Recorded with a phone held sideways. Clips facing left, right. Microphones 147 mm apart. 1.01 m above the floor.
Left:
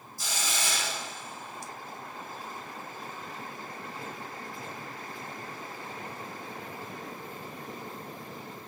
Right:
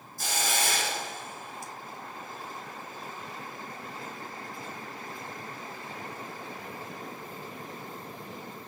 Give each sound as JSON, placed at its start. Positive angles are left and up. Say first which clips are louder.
{"t": 0.2, "sound": "a hiss", "louder": "right 4 dB", "side_deg": -55, "distance_m": 3.0}